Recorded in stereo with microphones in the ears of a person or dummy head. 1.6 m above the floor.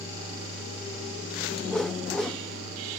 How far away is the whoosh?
About 0.8 m.